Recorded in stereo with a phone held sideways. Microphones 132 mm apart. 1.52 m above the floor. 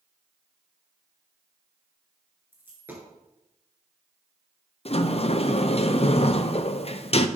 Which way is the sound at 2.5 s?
15° right (ahead or behind).